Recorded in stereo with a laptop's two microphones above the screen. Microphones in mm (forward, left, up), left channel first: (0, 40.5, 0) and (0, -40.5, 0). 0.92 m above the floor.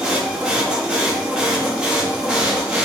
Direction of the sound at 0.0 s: 10° right (ahead or behind).